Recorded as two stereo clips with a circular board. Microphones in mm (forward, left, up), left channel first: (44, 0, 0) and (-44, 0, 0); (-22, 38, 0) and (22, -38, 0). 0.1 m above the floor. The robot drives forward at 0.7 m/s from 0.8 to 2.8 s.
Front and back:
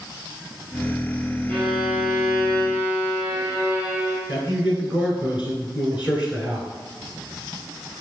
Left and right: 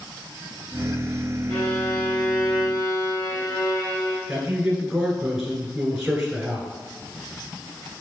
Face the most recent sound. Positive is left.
turn(degrees=-135)